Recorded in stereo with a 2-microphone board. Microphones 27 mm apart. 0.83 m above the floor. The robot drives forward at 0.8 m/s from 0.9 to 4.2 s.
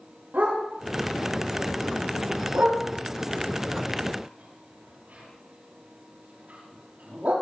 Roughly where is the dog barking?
Right.